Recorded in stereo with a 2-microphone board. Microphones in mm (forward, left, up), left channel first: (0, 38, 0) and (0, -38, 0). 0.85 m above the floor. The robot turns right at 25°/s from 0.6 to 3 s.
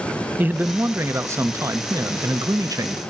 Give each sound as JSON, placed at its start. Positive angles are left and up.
{"t": 0.4, "sound": "a man speaking", "azimuth_deg": -150, "distance_m": 0.8}